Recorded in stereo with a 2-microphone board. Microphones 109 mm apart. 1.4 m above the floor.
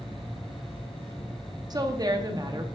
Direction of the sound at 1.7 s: 40° right (ahead or behind).